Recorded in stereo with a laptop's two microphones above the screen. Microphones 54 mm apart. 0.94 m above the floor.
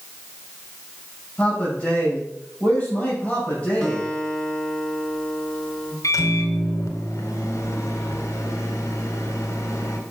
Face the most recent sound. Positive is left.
turn(degrees=80)